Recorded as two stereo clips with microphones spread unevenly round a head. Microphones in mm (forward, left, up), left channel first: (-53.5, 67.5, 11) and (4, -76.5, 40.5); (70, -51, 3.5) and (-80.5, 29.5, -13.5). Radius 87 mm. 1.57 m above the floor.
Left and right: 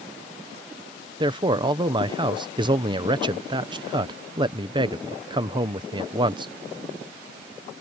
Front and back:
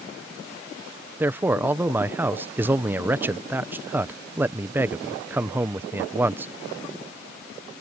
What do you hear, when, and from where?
1.2 s a man speaking: 130° right